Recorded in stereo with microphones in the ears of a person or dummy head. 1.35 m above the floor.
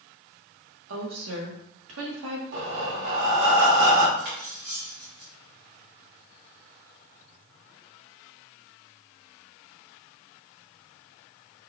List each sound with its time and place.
0.9 s a woman speaking: 70° right (ahead or behind), 1.1 m
2.5 s breathing: 65° right (ahead or behind), 1.0 m
4.2 s cutlery clinking: 40° right (ahead or behind), 0.9 m